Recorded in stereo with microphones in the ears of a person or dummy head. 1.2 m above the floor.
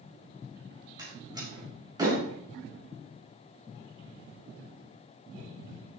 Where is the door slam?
25° right (ahead or behind), 5.5 m.